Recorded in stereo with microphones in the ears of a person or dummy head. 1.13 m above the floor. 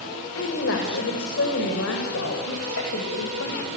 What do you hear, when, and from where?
0.3 s a woman speaking: 80° left, 4.5 m; by 3.7 s 85° left, 6 m